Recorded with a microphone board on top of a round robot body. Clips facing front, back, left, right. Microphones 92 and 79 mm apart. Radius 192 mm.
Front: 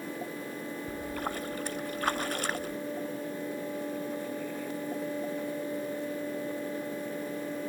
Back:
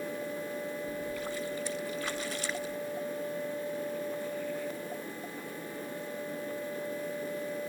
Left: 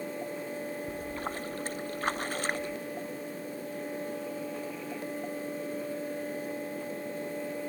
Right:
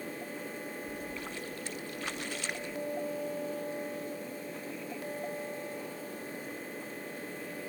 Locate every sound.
0.9 s a splash: 40° left